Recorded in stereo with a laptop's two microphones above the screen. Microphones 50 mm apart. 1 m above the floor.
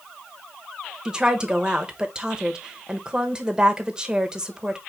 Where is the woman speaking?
15° right (ahead or behind), 1.0 m.